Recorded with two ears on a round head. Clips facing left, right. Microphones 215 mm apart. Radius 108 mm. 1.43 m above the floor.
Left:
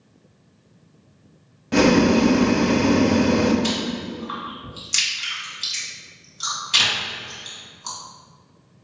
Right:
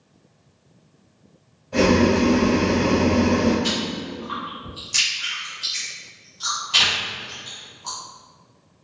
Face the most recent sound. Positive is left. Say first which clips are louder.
# left 1 dB
turn(degrees=30)  # may be behind; listen again after turning